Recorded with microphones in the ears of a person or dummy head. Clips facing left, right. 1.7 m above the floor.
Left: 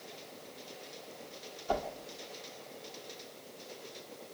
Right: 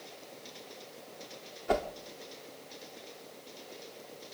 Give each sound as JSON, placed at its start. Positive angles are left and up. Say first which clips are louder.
{"t": 1.7, "sound": "a whoosh", "louder": "right 4 dB", "side_deg": -15, "distance_m": 1.3}